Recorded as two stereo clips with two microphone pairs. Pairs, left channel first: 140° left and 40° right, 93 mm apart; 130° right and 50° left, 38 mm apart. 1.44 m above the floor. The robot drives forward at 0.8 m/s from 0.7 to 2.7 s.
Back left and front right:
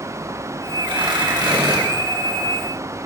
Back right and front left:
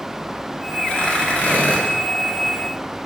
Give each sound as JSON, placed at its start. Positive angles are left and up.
{"t": 0.8, "sound": "tearing paper", "azimuth_deg": -65, "distance_m": 2.5}